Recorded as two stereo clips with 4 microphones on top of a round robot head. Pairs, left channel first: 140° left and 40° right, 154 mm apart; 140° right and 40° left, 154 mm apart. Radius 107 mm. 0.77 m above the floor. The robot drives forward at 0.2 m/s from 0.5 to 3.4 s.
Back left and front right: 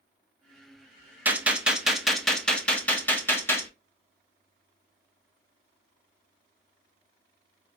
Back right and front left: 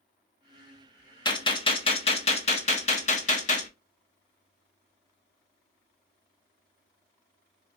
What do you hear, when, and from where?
1.2 s a gunshot: 110° right, 0.7 m; by 3.7 s 145° right, 0.9 m